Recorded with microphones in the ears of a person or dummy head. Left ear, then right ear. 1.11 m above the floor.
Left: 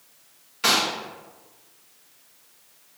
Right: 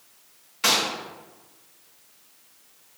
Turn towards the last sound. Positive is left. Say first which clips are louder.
# left 1 dB
turn(degrees=-5)  # may be behind; listen again after turning